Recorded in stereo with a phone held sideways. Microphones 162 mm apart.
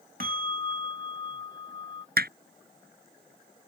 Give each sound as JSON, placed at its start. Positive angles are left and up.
{"t": 0.2, "sound": "a bell", "side_deg": -65}
{"t": 2.2, "sound": "hammering", "side_deg": -80}